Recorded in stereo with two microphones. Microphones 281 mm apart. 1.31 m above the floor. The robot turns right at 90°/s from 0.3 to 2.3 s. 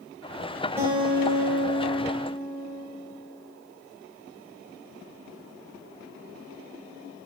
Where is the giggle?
I don't hear a giggle.